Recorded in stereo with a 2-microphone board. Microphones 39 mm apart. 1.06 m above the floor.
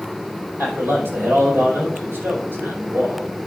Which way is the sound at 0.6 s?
75° right (ahead or behind).